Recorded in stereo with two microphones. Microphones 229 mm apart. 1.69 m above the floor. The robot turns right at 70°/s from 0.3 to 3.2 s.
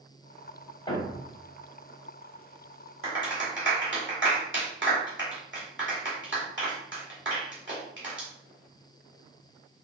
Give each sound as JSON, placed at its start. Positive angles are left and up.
{"t": 0.9, "sound": "a thud", "side_deg": 20, "distance_m": 1.6}
{"t": 3.0, "sound": "a clap", "side_deg": -65, "distance_m": 2.5}